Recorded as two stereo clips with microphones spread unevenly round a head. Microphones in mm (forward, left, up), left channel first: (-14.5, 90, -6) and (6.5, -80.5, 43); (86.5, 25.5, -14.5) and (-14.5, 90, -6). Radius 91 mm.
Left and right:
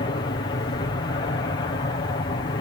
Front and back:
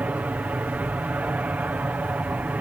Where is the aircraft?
75° left.